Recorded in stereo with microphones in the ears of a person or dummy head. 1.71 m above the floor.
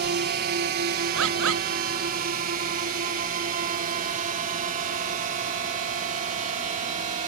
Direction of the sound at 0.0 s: 45° right (ahead or behind).